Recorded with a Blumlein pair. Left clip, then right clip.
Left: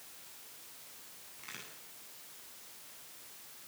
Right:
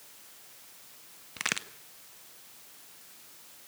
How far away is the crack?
About 1.3 m.